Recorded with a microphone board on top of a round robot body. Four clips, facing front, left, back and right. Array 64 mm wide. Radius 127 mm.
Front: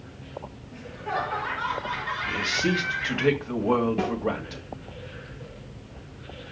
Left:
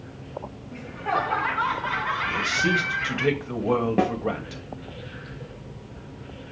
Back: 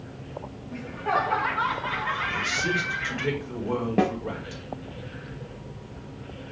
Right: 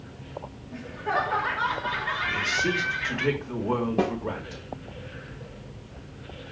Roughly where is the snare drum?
Behind left.